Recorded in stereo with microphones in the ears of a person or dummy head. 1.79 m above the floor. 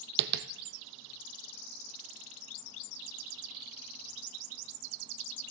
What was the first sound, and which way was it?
Tapping, 55° right (ahead or behind).